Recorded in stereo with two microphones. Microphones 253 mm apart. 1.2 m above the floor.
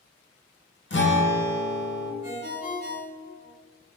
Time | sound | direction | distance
0.9 | a guitar | 45° left (ahead or behind) | 0.8 m
2.2 | a ringtone | 45° left (ahead or behind) | 1.7 m